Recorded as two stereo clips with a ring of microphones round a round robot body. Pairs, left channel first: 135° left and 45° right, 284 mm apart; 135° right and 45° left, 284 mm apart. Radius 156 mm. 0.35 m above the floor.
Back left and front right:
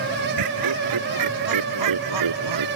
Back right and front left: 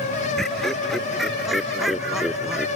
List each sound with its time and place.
0.4 s laughter: 45° right